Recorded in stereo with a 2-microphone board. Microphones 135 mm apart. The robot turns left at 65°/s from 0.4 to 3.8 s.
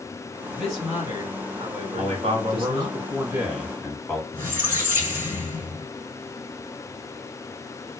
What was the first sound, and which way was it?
A man speaking, 10° left.